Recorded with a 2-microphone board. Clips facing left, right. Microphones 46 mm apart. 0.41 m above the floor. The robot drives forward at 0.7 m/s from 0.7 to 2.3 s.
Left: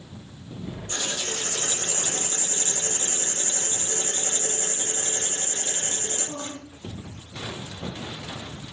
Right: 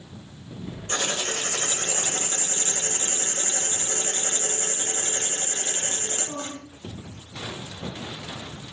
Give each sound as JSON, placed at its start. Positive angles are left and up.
{"t": 0.9, "sound": "writing", "side_deg": -60, "distance_m": 1.3}